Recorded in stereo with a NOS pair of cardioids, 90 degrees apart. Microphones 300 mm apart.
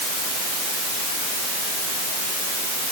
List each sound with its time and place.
Only background noise.